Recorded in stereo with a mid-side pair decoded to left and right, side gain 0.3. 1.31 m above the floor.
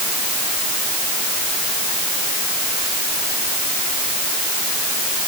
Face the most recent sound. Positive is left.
No sound to turn to.